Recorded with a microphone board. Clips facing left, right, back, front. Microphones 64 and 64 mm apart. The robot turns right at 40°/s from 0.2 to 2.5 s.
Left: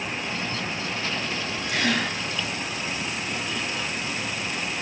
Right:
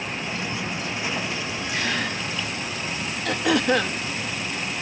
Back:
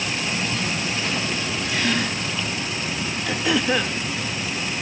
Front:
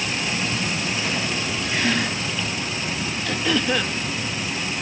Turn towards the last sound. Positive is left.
turn(degrees=-100)